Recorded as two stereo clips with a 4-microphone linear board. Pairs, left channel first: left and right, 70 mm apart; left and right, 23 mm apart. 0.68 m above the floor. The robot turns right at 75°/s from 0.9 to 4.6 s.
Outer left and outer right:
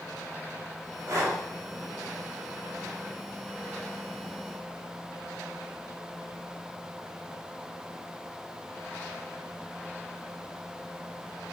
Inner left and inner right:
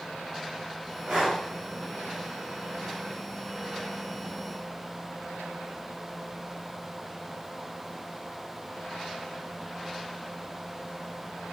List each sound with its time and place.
1.1 s breathing: 50° right (ahead or behind), 0.8 m; by 1.4 s 40° right (ahead or behind), 0.8 m